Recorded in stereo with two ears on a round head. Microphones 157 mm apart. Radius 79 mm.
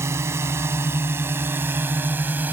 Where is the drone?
15° right (ahead or behind); by 2.5 s 10° right (ahead or behind).